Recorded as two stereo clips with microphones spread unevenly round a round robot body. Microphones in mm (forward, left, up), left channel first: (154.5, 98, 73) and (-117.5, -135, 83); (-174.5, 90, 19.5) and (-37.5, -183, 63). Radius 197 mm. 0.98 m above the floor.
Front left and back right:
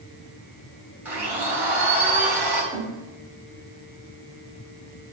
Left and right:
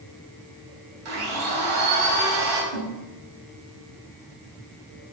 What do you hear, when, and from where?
1.1 s a blender: 55° right, 3.5 m
2.7 s a snare drum: 55° right, 1.6 m